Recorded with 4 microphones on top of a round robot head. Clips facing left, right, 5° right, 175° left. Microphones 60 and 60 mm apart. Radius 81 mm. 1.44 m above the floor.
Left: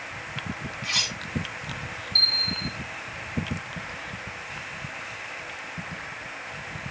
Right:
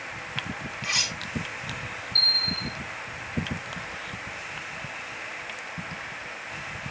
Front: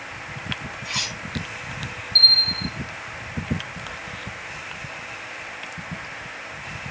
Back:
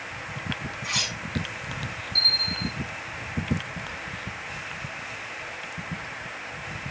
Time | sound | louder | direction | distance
0.8 | cutlery clinking | even, even | 165° right | 3 m
2.1 | a bell | even, front 7 dB | 120° left | 1.2 m